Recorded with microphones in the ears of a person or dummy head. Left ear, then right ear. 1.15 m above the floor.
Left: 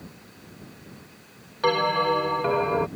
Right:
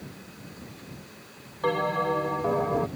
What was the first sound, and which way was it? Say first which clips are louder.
A bell: left 4 dB; 70° left (ahead or behind).